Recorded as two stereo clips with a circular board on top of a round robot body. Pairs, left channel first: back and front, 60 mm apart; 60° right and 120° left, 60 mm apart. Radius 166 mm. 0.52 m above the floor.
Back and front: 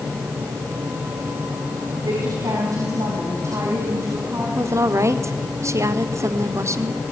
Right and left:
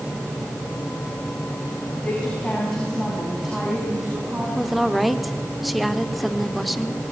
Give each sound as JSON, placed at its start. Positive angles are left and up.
{"t": 2.0, "sound": "a woman speaking", "azimuth_deg": 10, "distance_m": 5.5}
{"t": 4.5, "sound": "a woman speaking", "azimuth_deg": 30, "distance_m": 1.5}